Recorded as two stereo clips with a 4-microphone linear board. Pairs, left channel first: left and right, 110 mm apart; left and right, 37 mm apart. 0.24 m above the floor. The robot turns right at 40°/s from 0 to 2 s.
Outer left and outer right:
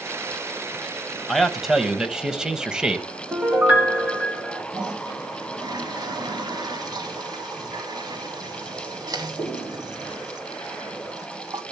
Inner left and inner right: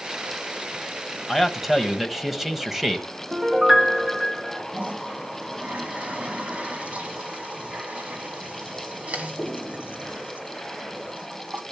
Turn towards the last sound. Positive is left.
turn(degrees=-40)  # may be behind; listen again after turning